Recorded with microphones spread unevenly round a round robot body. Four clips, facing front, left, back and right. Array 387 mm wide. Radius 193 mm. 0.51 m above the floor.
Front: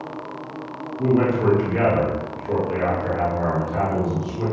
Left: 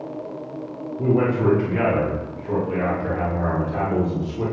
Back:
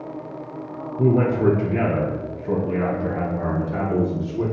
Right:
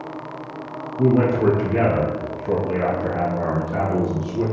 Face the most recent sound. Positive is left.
turn(degrees=-120)